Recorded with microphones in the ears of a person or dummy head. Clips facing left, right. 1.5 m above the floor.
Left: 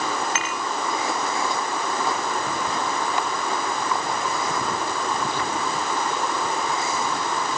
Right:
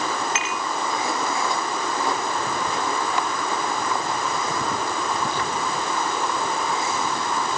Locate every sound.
0.3 s dishes clattering: 55° left (ahead or behind)